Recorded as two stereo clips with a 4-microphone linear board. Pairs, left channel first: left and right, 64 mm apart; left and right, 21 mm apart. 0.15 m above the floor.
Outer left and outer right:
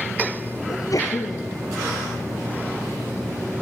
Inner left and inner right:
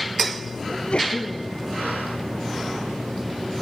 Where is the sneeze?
55° left (ahead or behind), 3 m.